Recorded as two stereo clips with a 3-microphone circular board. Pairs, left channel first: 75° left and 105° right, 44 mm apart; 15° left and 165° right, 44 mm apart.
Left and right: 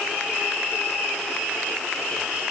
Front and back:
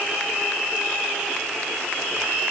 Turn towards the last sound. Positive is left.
No sound to turn to.